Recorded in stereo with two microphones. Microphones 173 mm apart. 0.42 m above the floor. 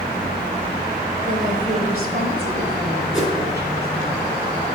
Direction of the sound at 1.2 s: 45° right (ahead or behind).